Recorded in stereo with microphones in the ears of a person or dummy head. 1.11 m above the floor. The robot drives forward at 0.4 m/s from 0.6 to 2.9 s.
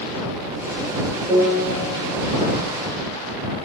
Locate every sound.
1.3 s a piano: 10° right (ahead or behind), 1.2 m